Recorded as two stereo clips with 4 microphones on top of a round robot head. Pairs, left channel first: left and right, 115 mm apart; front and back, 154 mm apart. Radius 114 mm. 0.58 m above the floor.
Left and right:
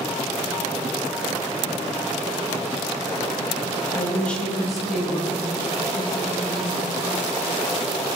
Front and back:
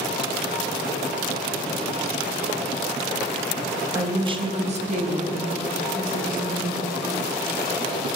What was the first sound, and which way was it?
A woman speaking, 140° left.